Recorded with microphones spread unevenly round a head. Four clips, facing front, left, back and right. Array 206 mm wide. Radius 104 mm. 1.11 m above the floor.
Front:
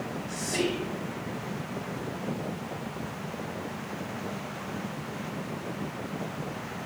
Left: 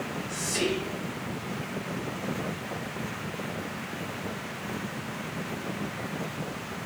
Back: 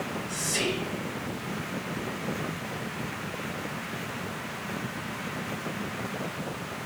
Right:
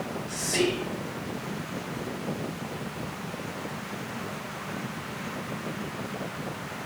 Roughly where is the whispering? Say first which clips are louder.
Right 3 dB, front 3 dB; right.